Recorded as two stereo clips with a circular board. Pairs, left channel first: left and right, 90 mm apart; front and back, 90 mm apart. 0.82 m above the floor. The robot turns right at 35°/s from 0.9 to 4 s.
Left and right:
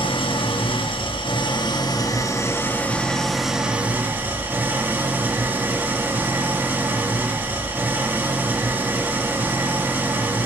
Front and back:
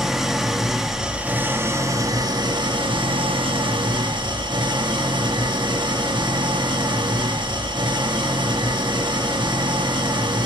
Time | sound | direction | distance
0.0 | an engine running | 95° left | 0.9 m